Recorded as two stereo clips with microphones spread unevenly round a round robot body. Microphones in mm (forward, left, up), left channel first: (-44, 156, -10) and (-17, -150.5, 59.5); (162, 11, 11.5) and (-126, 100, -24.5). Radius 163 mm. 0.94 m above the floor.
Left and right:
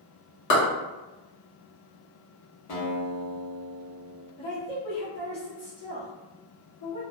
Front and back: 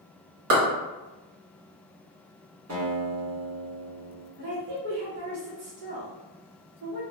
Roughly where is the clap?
Behind left.